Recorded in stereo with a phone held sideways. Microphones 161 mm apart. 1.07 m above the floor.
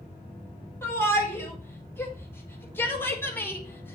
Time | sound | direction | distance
0.8 | a shout | 15° left (ahead or behind) | 6.5 m